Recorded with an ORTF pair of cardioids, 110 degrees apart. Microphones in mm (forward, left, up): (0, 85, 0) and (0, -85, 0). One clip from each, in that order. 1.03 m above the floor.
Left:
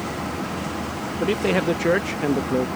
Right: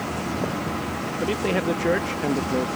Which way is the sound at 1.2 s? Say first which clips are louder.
Left 3 dB; 15° left.